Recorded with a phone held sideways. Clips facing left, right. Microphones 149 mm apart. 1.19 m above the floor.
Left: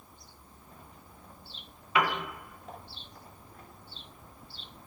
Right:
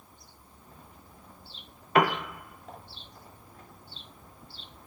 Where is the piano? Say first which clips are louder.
Right 5 dB; 50° right (ahead or behind), 0.9 m.